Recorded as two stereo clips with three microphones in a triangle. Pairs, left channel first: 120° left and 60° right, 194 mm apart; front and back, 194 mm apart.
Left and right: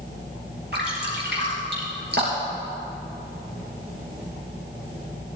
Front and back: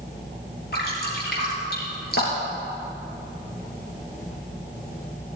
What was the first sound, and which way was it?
Dripping, 30° right.